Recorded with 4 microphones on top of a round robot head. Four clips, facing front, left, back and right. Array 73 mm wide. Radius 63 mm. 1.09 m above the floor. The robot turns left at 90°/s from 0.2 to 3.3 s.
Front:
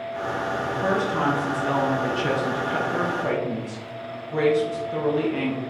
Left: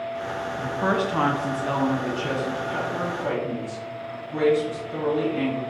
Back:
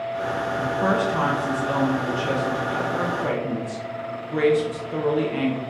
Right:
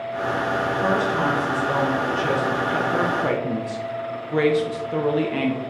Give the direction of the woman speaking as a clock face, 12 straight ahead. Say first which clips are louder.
Even, back 3 dB; 7 o'clock.